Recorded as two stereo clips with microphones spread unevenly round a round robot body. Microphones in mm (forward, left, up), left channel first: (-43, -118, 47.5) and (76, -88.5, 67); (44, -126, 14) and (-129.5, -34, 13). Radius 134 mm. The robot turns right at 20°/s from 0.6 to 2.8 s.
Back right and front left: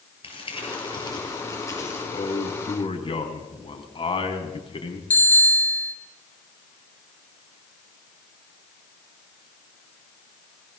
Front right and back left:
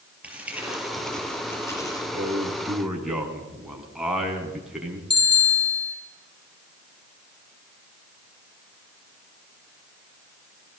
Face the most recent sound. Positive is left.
turn(degrees=-90)